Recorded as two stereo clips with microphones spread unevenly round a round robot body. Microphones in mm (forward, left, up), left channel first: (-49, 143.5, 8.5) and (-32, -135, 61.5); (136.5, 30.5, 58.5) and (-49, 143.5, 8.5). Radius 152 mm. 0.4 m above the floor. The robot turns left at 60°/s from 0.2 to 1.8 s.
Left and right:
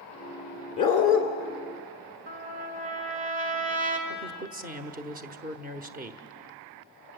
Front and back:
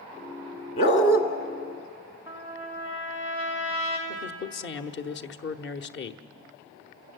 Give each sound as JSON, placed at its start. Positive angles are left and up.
{"t": 0.8, "sound": "a dog barking", "azimuth_deg": 20, "distance_m": 1.8}
{"t": 2.3, "sound": "a trumpet", "azimuth_deg": -135, "distance_m": 2.0}
{"t": 4.1, "sound": "a man speaking", "azimuth_deg": -30, "distance_m": 1.0}